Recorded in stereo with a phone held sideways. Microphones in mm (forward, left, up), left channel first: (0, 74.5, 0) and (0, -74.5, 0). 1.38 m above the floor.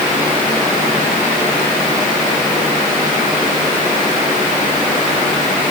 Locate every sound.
Only background noise.